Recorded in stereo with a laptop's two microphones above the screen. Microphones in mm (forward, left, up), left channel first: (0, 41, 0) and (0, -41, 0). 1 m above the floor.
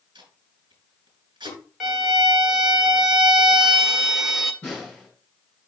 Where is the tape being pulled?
85° right, 3 m.